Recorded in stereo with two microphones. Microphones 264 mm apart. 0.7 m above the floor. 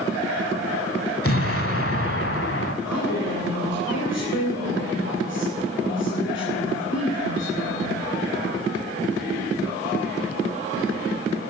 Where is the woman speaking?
70° left (ahead or behind), 2.5 m.